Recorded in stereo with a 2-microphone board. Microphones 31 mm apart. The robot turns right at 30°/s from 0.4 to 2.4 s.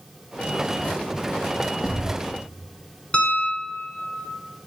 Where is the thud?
45° left (ahead or behind), 6 m; by 2.2 s 60° left (ahead or behind), 6 m.